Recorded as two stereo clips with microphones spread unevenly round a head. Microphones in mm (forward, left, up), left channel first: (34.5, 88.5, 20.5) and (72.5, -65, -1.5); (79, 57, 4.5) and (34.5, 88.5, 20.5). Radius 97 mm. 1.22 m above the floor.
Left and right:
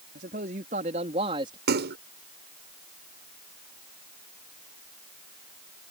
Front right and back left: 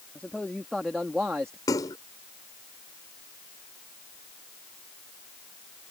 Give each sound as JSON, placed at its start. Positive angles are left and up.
{"t": 0.1, "sound": "a man speaking", "azimuth_deg": -115}
{"t": 1.7, "sound": "a splash", "azimuth_deg": -70}